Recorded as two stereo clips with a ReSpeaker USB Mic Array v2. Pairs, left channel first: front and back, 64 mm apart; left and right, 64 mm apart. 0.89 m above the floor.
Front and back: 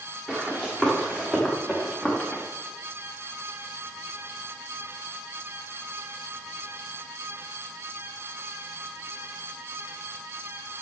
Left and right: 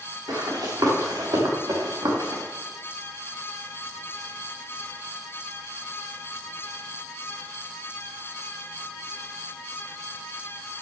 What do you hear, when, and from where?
0.3 s running footsteps: 75° right, 6 m; by 2.4 s 70° right, 4 m